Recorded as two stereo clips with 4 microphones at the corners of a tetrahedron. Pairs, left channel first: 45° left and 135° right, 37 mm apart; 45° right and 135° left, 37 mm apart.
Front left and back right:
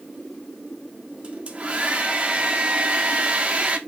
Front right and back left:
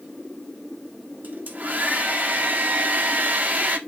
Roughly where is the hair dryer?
Behind.